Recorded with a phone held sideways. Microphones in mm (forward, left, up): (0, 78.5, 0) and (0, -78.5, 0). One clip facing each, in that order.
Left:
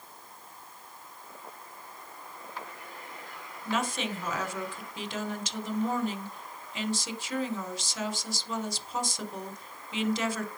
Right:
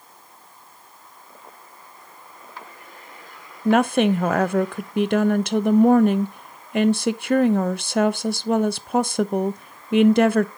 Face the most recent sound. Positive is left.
turn(degrees=-60)  # may be behind; listen again after turning